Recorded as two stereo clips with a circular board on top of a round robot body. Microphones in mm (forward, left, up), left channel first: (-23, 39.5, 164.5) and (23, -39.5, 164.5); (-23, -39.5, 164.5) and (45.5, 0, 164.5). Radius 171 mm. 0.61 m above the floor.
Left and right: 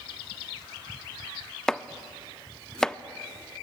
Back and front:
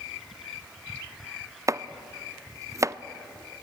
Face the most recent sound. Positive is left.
turn(degrees=40)